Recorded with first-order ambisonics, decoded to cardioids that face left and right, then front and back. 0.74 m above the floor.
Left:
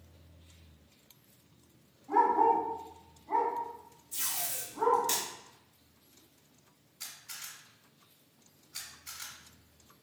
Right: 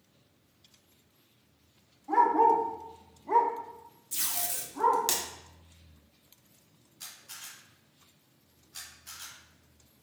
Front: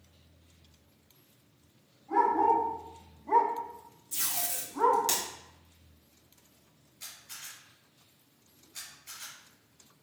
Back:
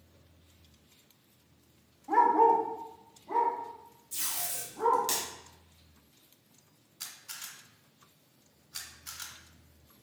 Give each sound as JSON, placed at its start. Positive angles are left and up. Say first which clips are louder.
{"t": 2.1, "sound": "a dog barking", "louder": "right 3 dB, back 2 dB", "azimuth_deg": -145, "distance_m": 0.9}
{"t": 4.1, "sound": "tape being pulled", "louder": "right 2 dB, front 2 dB", "azimuth_deg": -80, "distance_m": 1.0}
{"t": 7.0, "sound": "a camera shutter", "louder": "left 1 dB, back 2 dB", "azimuth_deg": 175, "distance_m": 1.9}